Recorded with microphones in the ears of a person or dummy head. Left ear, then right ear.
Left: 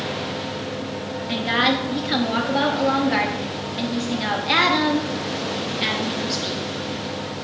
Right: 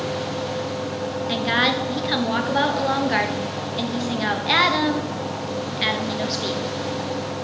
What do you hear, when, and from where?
0.0 s a fan: 45° right (ahead or behind), 1.0 m
1.3 s a woman speaking: 15° right (ahead or behind), 0.8 m